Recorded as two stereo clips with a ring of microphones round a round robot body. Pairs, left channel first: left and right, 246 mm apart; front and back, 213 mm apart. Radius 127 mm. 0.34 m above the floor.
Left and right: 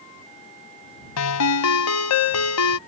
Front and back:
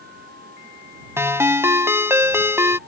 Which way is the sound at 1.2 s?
100° left.